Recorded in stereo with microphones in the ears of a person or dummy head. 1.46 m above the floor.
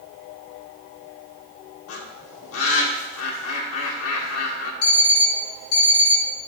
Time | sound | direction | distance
1.9 | a bird | 80° left | 1.4 m
4.8 | an alarm clock | 65° left (ahead or behind) | 1.5 m